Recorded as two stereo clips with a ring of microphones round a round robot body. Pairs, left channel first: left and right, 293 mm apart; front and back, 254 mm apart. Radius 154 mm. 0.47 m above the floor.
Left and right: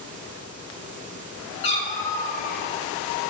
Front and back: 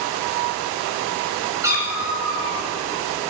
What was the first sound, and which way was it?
A cat meowing, 100° left.